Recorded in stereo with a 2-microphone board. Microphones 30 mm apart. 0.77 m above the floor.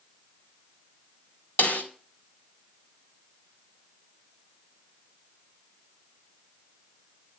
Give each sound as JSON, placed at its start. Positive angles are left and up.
{"t": 1.6, "sound": "a snare drum", "side_deg": 70, "distance_m": 4.0}